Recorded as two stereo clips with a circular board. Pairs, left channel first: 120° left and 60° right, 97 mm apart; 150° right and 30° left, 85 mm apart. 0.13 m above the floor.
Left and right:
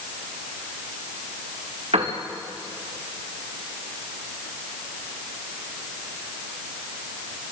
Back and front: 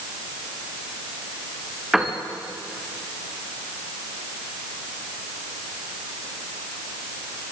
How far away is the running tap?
No running tap in this recording.